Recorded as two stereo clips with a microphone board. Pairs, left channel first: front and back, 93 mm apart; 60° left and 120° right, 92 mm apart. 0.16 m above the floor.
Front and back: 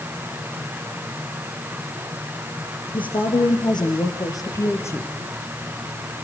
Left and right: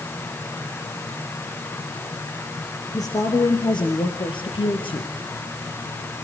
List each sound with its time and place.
2.9 s a woman speaking: 15° left, 3 m; by 5.1 s 60° left, 3 m